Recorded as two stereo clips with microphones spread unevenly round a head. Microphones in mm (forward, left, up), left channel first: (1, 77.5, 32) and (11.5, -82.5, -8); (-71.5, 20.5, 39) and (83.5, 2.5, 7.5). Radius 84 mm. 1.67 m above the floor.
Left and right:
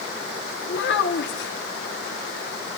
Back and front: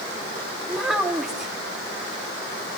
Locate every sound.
0.7 s a child speaking: 85° left, 3 m